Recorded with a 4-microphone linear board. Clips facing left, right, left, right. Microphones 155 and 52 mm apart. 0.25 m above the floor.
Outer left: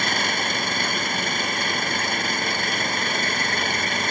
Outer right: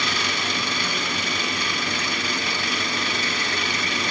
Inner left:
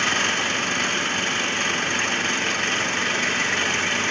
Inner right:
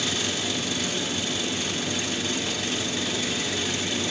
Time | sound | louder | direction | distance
0.0 | an engine running | outer left 2 dB, inner left 7 dB | 50° left (ahead or behind) | ?